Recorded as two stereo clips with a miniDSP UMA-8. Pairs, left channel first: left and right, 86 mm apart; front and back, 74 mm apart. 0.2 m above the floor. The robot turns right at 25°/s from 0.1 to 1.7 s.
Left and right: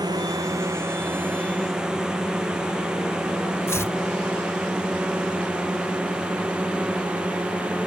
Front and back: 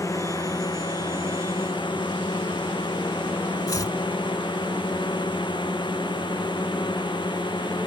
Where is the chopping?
35° left.